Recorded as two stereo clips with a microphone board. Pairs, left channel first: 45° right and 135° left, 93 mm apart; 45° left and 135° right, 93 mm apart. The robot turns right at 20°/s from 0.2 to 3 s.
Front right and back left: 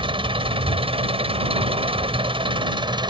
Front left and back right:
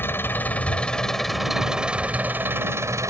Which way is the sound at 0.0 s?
110° left.